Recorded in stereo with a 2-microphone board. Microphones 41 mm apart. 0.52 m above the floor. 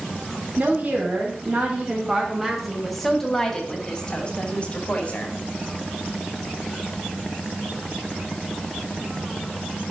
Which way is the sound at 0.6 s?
35° right (ahead or behind).